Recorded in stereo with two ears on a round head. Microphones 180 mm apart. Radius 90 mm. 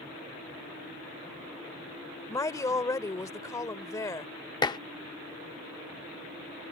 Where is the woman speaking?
15° left (ahead or behind).